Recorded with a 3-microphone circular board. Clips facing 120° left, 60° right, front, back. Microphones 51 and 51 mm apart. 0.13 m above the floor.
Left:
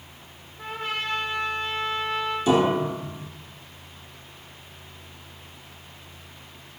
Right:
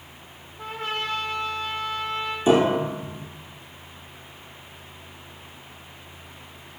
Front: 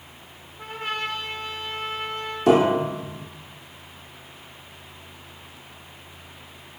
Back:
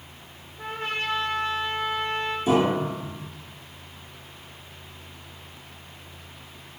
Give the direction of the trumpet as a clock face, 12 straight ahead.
5 o'clock.